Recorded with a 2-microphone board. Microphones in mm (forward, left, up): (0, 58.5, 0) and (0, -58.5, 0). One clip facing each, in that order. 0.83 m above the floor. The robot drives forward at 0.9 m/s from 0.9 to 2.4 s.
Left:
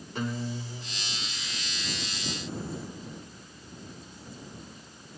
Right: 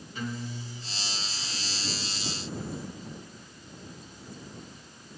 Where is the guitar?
70° left (ahead or behind), 1.9 m; by 1.3 s 80° left, 1.8 m.